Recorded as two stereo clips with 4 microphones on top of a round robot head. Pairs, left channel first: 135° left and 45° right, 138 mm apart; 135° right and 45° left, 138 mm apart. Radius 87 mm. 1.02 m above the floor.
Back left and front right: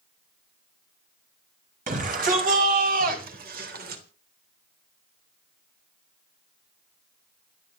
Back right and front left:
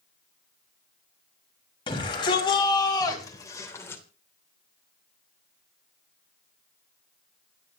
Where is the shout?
75° right, 5.5 m; by 4.0 s 55° right, 3 m.